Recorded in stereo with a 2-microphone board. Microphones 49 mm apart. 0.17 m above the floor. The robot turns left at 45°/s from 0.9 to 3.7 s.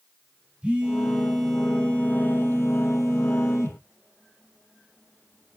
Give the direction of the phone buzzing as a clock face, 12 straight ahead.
5 o'clock.